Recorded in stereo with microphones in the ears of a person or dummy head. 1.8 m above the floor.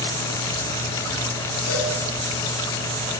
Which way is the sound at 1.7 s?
60° left (ahead or behind).